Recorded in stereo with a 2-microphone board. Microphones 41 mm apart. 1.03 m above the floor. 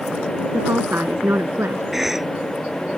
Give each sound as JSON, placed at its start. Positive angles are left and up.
{"t": 0.5, "sound": "a woman speaking", "side_deg": -75}
{"t": 1.9, "sound": "a cough", "side_deg": -10}